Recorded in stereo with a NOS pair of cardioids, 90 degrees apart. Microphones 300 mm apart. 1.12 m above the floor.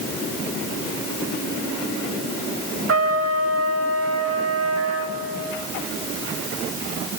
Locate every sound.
2.9 s a trumpet: 50° right, 1.8 m